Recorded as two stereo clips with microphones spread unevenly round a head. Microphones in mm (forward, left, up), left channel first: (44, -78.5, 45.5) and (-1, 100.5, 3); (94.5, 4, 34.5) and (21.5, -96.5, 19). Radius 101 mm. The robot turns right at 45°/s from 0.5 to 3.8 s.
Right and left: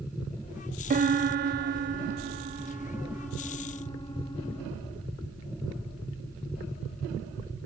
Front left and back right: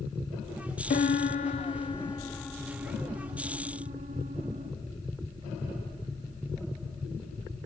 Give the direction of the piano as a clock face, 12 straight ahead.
10 o'clock.